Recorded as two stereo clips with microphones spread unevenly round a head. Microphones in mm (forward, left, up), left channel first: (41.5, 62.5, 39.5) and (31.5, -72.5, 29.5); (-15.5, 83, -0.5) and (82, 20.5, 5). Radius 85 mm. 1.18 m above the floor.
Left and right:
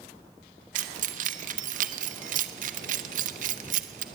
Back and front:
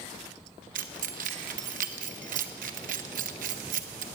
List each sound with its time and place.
0.8 s keys jangling: 65° right, 1.2 m